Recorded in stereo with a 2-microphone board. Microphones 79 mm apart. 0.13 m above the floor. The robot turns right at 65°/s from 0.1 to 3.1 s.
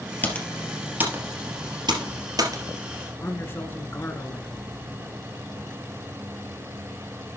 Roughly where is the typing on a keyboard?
Left.